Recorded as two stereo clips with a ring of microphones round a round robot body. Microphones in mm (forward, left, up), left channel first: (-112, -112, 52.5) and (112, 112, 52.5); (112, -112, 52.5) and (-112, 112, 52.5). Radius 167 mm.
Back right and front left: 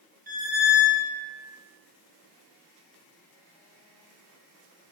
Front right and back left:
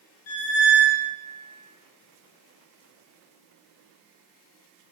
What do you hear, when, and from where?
0.3 s a squeak: 10° right, 1.0 m